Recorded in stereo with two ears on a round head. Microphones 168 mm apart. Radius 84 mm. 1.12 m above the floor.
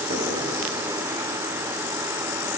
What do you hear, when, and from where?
0.1 s knocking: 40° right (ahead or behind), 8 m